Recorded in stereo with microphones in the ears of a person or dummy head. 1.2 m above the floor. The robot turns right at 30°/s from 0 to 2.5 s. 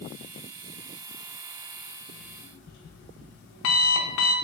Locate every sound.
2.1 s an alarm clock: 55° left (ahead or behind), 0.6 m; by 4.3 s 45° left (ahead or behind), 0.6 m